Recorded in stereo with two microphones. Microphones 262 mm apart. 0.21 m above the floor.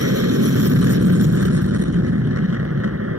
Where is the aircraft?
65° right (ahead or behind); by 3.2 s 55° right (ahead or behind).